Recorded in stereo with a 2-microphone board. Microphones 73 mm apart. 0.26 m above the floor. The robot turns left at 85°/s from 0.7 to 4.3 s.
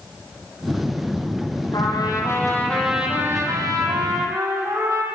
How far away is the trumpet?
About 5.5 m.